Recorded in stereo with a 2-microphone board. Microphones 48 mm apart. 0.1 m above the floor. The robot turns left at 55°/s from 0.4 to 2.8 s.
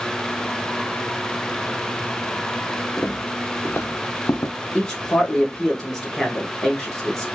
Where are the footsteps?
35° left (ahead or behind), 1.0 m; by 4.5 s 85° left, 0.6 m.